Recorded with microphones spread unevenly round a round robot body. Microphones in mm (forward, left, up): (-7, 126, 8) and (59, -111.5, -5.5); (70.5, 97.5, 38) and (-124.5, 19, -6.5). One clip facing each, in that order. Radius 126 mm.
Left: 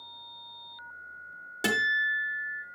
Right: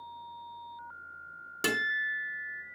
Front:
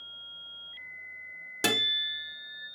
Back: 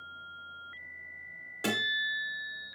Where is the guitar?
5° right, 1.1 m.